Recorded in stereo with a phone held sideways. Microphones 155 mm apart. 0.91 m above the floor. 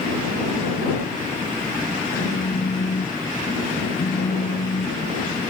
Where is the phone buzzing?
75° left (ahead or behind).